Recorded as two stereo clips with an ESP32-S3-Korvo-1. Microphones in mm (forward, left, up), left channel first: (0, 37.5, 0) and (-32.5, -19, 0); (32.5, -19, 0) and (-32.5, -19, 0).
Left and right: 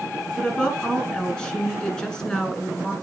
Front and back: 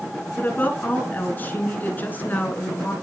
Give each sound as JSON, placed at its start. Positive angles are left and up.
{"t": 0.4, "sound": "a woman speaking", "azimuth_deg": -5, "distance_m": 1.5}